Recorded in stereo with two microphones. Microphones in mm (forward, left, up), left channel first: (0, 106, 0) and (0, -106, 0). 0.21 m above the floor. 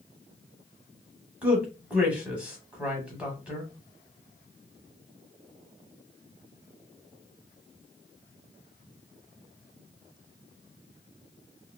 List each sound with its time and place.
1.4 s a man speaking: 5° right (ahead or behind), 1.1 m